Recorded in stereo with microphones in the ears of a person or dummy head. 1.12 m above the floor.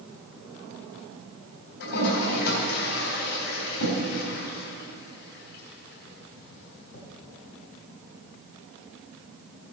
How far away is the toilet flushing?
About 4 m.